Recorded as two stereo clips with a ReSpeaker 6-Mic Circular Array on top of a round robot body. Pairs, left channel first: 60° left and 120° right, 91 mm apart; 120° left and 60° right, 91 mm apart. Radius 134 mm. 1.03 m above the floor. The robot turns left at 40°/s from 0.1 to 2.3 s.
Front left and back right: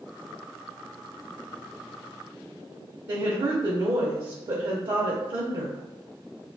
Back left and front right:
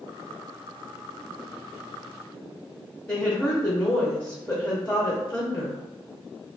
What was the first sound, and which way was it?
A woman speaking, 160° right.